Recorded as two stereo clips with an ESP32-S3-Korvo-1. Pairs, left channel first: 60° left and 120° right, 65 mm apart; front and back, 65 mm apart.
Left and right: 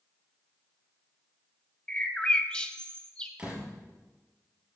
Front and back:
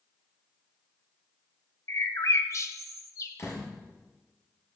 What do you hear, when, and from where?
1.9 s a bird: 15° right, 1.1 m
3.4 s a door slam: 45° right, 5.5 m